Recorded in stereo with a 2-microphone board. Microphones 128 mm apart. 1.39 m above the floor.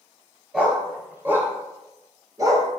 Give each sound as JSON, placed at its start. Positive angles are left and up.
{"t": 0.5, "sound": "a dog barking", "side_deg": -10, "distance_m": 2.5}